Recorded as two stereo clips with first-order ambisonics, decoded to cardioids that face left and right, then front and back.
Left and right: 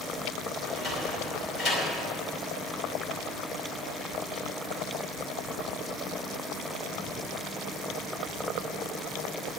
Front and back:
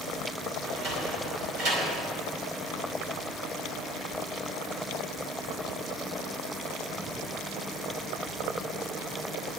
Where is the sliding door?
155° left, 5 m.